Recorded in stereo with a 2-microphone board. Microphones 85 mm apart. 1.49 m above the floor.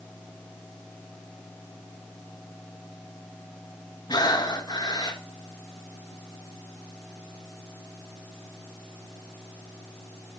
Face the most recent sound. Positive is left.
turn(degrees=55)  # may be behind; listen again after turning